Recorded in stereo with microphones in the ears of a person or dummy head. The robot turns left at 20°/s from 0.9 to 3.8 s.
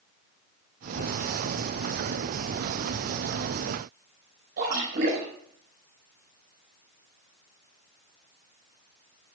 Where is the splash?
55° right (ahead or behind), 5 m.